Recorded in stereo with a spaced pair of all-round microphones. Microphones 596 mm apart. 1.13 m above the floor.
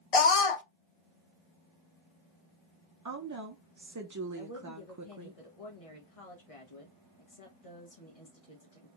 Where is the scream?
65° left (ahead or behind), 0.7 m.